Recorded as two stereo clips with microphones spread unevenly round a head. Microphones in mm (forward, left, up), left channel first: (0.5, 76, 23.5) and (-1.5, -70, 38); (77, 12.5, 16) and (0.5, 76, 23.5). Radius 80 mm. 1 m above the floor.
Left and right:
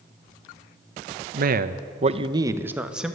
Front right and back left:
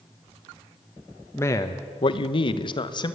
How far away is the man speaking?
About 1.0 m.